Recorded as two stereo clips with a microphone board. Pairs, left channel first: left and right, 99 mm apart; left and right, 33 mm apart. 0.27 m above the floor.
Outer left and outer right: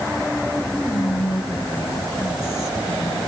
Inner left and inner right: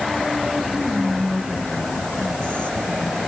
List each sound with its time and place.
0.8 s whispering: 30° left (ahead or behind), 1.7 m